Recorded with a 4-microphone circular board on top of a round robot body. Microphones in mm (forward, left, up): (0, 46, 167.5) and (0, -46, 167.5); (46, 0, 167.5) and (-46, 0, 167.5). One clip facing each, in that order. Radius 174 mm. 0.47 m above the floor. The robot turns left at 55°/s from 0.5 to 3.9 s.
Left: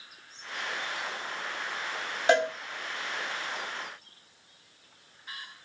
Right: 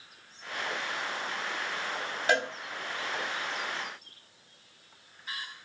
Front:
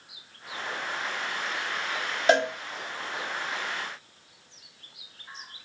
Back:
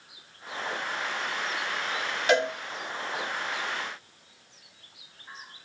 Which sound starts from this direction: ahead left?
A cowbell, at 2.3 s.